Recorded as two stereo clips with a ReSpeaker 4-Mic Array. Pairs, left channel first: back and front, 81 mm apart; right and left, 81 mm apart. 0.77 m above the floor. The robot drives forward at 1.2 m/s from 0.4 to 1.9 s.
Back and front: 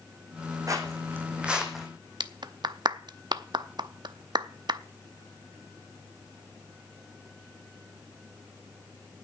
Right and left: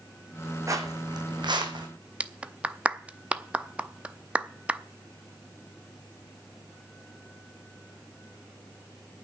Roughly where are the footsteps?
Ahead left.